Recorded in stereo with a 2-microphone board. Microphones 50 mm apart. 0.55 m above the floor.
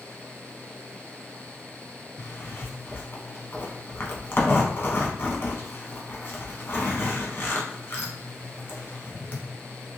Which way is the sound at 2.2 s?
50° left (ahead or behind).